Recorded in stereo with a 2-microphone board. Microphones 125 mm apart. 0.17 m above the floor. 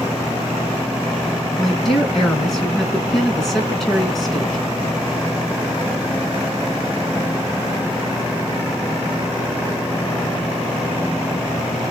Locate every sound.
1.6 s a woman speaking: 5° left (ahead or behind), 2 m